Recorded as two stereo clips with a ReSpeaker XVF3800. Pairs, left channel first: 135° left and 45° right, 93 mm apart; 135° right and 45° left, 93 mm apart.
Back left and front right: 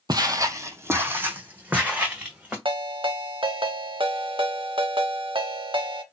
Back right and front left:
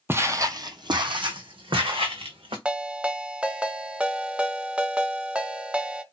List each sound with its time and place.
0.1 s footsteps: 15° right, 0.5 m; by 2.5 s 35° left, 1.6 m
2.6 s a ringtone: 30° right, 0.5 m